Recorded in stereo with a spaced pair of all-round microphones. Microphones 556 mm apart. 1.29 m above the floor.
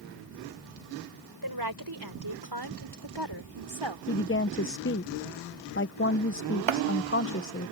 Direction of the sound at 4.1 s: 25° left (ahead or behind).